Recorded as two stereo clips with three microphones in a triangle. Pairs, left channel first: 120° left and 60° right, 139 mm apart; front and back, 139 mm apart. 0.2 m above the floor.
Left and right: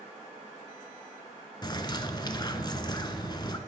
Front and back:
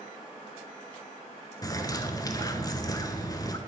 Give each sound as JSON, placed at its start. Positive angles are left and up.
{"t": 1.6, "sound": "a bird", "azimuth_deg": 60, "distance_m": 0.5}